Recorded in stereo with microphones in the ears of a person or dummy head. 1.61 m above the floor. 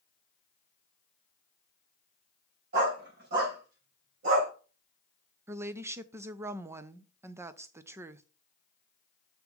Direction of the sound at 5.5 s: 15° right (ahead or behind).